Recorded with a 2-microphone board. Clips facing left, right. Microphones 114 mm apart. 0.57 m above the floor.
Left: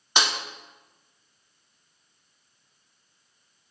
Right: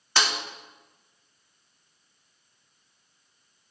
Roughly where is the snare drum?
Centre.